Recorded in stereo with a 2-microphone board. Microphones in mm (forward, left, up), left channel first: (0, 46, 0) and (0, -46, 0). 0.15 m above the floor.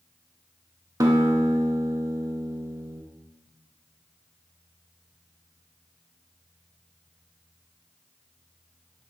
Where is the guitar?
40° right (ahead or behind), 0.6 m.